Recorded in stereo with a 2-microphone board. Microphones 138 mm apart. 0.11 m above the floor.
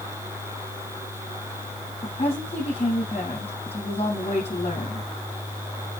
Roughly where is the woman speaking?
Left.